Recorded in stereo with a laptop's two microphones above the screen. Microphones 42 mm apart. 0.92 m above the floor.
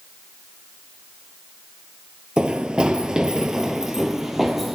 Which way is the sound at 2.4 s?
20° right (ahead or behind).